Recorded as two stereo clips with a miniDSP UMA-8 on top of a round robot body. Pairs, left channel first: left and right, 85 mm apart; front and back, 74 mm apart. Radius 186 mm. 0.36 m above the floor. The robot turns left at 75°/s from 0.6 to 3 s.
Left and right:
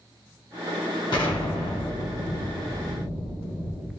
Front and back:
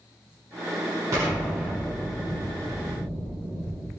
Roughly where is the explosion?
Behind left.